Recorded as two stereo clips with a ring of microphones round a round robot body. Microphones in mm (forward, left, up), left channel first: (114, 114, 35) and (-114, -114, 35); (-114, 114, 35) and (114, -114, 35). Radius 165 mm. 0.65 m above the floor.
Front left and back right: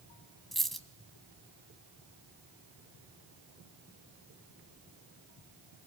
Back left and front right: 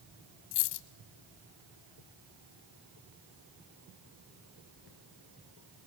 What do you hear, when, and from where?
0.5 s a dropped coin: 135° left, 1.7 m